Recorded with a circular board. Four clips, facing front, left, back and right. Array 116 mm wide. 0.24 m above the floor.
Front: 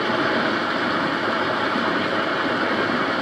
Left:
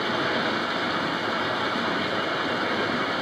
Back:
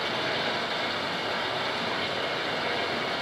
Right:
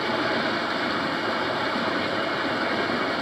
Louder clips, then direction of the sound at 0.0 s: Right 1 dB, front 9 dB; 5° right.